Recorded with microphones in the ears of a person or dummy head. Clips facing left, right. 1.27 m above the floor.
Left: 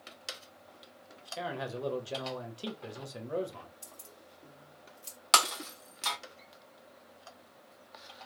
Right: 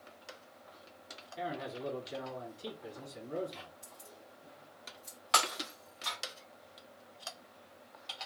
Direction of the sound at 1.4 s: 85° left.